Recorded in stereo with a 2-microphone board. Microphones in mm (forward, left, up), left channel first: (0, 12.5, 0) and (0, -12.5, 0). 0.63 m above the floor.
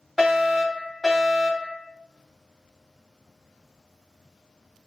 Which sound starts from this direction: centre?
A fire alarm, at 0.2 s.